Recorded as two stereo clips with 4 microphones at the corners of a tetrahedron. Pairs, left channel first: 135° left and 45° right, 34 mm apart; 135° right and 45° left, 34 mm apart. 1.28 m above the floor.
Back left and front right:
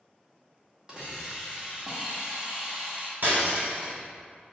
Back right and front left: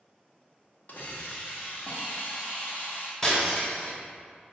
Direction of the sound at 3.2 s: 65° right.